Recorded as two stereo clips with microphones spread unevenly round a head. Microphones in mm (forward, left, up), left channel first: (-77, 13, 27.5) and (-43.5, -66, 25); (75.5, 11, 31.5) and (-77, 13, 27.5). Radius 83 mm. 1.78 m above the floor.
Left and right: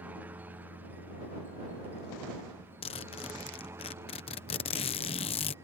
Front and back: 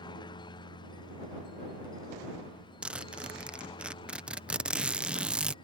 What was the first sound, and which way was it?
A helicopter, 15° right.